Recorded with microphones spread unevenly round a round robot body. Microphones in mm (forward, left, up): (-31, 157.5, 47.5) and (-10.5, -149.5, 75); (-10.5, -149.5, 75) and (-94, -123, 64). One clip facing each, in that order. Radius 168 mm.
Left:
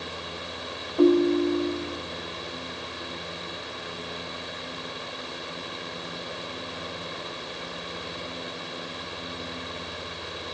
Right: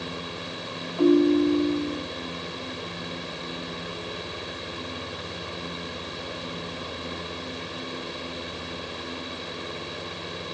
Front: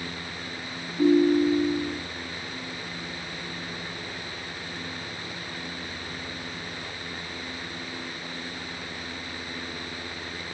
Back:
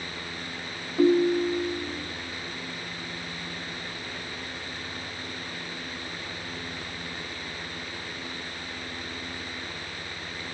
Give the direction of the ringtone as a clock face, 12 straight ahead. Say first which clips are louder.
Right 1 dB, front 2 dB; 7 o'clock.